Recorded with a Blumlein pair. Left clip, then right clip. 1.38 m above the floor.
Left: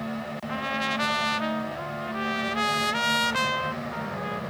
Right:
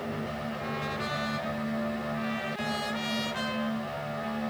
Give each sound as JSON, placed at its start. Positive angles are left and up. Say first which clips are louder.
{"t": 0.5, "sound": "a trumpet", "louder": "left 10 dB", "azimuth_deg": 30, "distance_m": 0.8}